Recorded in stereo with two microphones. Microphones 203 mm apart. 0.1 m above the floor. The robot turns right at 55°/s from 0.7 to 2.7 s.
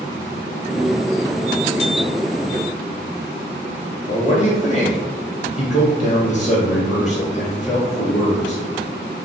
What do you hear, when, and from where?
4.1 s a man speaking: 35° left (ahead or behind), 1.9 m